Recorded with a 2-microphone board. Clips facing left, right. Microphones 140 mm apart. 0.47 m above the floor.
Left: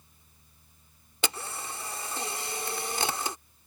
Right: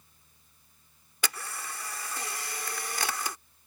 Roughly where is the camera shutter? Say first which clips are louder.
Left 3 dB; left.